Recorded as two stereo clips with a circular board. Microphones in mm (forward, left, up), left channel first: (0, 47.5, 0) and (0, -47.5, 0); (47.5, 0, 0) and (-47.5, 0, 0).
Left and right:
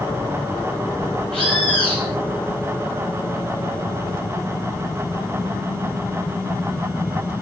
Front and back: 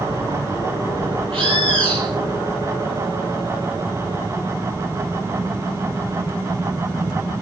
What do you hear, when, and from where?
1.3 s a bird: 170° left, 9 m